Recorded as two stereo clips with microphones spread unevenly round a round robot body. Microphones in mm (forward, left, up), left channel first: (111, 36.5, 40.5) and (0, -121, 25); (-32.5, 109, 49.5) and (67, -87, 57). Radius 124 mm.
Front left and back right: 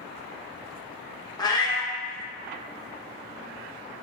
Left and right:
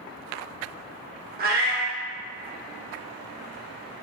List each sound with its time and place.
1.4 s a cat meowing: 15° right, 0.7 m